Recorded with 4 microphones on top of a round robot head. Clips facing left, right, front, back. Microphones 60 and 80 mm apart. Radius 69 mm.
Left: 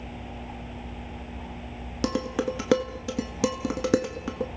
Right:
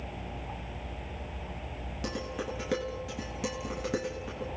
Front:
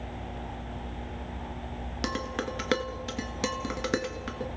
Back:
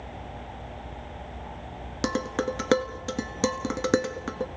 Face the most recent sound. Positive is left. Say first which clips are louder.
# left 9 dB, back 5 dB
turn(degrees=120)